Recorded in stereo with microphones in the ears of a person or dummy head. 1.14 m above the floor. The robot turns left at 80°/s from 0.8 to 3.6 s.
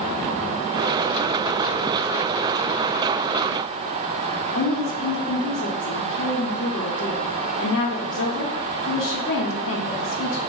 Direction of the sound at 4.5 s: 65° left (ahead or behind).